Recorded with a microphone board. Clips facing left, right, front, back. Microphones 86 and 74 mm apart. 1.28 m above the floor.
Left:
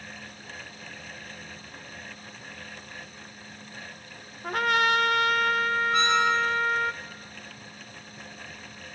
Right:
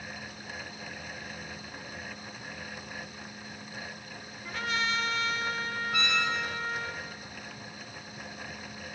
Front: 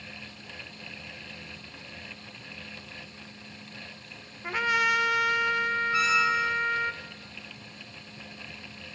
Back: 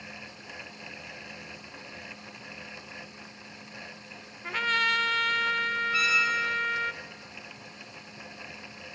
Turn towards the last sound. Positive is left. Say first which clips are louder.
# left 6 dB, front 3 dB
turn(degrees=45)